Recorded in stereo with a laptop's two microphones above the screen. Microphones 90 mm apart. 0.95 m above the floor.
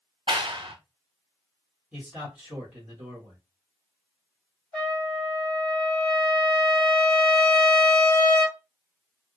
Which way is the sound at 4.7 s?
10° left (ahead or behind).